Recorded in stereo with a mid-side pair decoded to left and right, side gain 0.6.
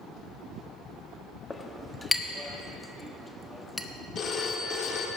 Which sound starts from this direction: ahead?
A clink, at 1.5 s.